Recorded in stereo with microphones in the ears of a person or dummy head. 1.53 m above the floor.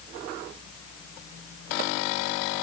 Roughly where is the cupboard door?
No cupboard door in this recording.